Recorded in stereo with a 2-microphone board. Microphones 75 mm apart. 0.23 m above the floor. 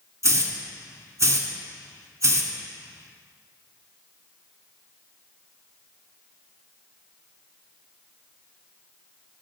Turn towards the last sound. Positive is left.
turn(degrees=-45)  # may be behind; listen again after turning